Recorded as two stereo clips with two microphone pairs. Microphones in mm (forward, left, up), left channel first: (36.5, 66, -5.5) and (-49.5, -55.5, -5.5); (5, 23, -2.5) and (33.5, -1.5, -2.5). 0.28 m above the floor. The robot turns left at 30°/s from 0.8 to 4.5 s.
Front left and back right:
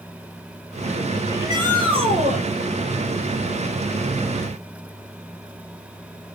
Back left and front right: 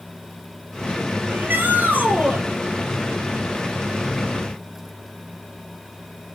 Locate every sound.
1.3 s a shout: 55° right, 7.5 m; by 2.4 s 90° right, 7.5 m